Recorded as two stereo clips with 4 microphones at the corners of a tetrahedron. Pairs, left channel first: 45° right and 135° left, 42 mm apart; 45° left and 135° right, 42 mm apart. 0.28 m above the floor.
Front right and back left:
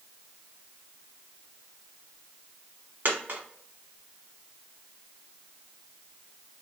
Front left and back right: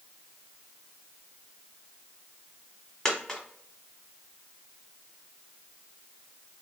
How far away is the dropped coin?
About 1.0 m.